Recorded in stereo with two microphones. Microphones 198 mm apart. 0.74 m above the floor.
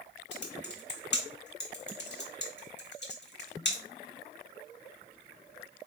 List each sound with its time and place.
0.3 s typing on a keyboard: 60° left (ahead or behind), 0.9 m